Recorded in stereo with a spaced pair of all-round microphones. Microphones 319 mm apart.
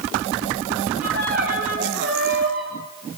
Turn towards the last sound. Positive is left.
turn(degrees=-40)  # may be behind; listen again after turning